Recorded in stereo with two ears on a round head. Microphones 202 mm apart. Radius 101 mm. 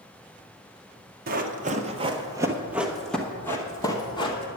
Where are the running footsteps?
40° right (ahead or behind), 1.1 m; by 4.5 s 25° left (ahead or behind), 1.6 m.